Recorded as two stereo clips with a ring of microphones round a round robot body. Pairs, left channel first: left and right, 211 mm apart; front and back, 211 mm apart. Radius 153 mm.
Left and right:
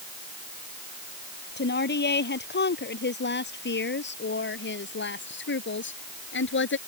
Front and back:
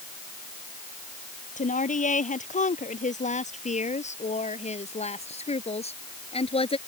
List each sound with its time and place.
1.6 s a woman speaking: 55° left; by 6.8 s 65° left